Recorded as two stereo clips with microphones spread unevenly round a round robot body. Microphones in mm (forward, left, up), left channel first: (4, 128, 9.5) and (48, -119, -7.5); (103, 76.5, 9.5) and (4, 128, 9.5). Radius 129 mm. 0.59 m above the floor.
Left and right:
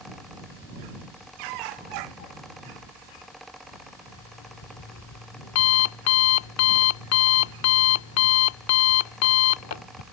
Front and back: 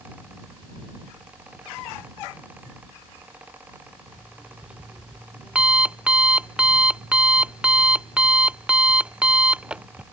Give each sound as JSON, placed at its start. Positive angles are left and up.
{"t": 4.1, "sound": "an alarm clock", "azimuth_deg": 70}